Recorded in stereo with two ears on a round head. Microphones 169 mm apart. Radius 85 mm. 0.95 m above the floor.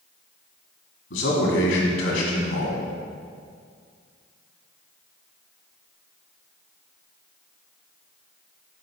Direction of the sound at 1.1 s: 65° left (ahead or behind).